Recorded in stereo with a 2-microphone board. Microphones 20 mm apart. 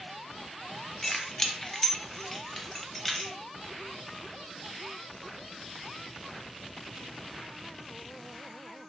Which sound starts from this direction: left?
Keys jangling, at 1.0 s.